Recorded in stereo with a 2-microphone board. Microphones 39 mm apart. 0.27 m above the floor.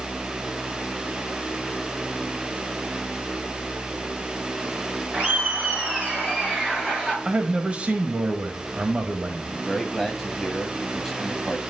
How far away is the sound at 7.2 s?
About 1.4 m.